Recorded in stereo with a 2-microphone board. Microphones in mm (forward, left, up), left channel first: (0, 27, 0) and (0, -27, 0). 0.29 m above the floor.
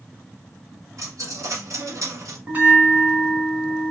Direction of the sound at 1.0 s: 75° right (ahead or behind).